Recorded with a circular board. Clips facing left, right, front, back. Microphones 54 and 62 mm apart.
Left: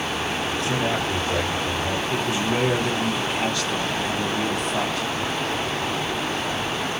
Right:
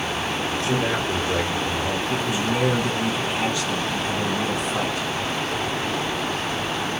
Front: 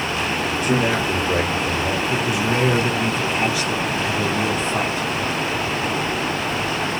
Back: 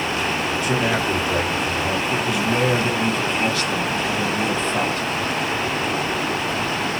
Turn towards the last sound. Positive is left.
turn(degrees=-60)